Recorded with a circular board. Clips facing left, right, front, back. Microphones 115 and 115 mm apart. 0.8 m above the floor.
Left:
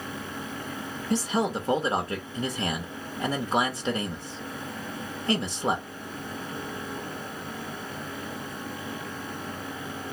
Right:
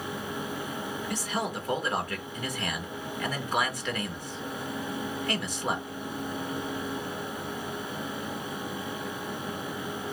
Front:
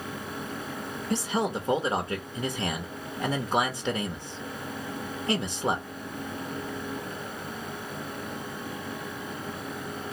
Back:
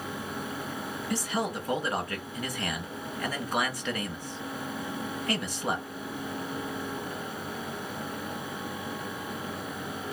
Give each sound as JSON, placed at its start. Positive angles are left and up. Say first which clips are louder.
{"t": 1.1, "sound": "a man speaking", "louder": "left 8 dB, front 3 dB", "azimuth_deg": 50, "distance_m": 0.8}